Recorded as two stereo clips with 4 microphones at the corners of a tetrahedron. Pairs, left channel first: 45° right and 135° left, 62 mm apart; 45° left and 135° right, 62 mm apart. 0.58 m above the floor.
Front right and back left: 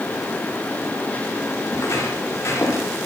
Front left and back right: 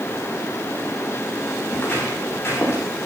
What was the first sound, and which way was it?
Footsteps, 15° right.